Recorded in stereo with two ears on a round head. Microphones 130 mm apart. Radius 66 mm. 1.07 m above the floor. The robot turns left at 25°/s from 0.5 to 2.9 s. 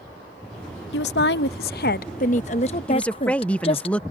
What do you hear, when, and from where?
0.9 s a woman speaking: 85° left; by 3.9 s 40° left
2.9 s a woman speaking: 10° left (ahead or behind)